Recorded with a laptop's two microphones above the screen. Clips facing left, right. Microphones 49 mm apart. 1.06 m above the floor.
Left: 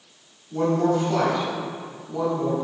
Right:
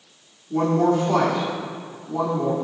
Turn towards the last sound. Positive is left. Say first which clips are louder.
# right 2 dB
turn(degrees=-65)  # may be behind; listen again after turning